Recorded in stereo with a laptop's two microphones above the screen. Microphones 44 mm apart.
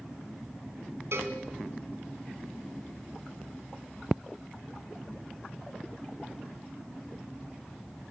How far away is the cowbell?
About 3 m.